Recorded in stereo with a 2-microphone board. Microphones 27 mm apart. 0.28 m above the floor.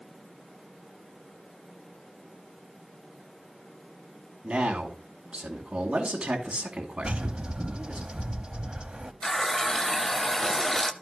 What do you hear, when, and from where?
4.4 s a man speaking: 45° right (ahead or behind), 2.5 m
7.0 s a bird: 35° right (ahead or behind), 0.8 m
9.2 s a running tap: 25° left (ahead or behind), 0.6 m